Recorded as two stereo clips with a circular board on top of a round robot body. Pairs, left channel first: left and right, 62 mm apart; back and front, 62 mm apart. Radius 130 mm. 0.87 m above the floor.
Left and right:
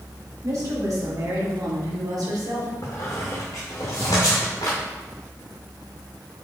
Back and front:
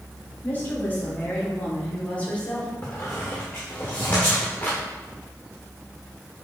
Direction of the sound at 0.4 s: 120° right.